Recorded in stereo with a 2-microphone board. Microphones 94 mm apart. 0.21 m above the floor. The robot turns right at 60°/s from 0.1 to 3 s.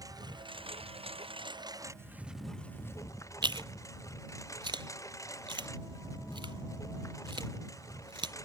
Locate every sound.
0.0 s a lawn mower: 40° right (ahead or behind); by 8.5 s 35° left (ahead or behind)
3.4 s chewing: 60° right (ahead or behind)